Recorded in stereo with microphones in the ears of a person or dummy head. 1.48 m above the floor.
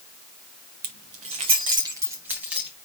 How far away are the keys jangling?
About 1.0 m.